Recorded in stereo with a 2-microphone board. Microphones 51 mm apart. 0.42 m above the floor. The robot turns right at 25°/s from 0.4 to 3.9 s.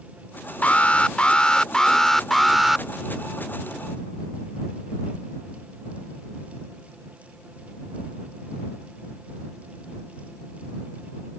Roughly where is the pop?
No pop in this recording.